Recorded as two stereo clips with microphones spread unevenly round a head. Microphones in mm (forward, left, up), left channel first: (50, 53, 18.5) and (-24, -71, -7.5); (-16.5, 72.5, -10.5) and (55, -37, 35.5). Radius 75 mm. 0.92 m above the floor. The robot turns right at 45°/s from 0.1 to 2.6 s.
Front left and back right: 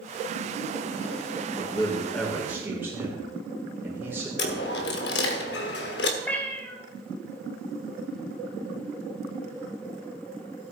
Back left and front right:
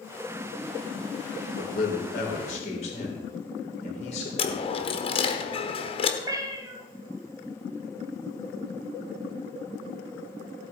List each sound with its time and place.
1.6 s a man speaking: 115° left, 3 m; by 4.3 s 160° left, 3 m
4.4 s a dropped coin: 70° left, 1.3 m
6.2 s a cat meowing: 10° right, 1.6 m